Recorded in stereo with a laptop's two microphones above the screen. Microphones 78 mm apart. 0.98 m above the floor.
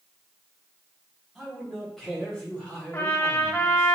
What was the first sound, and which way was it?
A man speaking, centre (ahead or behind).